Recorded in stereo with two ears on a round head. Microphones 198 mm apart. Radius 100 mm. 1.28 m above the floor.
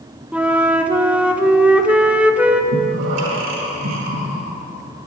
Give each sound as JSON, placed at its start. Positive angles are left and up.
{"t": 0.3, "sound": "a flute", "side_deg": -5, "distance_m": 0.6}
{"t": 2.7, "sound": "breathing", "side_deg": -80, "distance_m": 2.0}